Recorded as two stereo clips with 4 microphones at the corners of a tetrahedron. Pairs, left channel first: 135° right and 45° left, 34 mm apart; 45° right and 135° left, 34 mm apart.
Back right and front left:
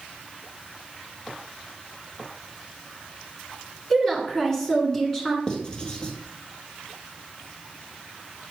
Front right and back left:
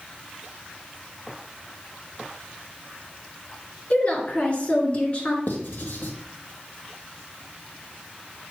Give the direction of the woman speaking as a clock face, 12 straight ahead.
2 o'clock.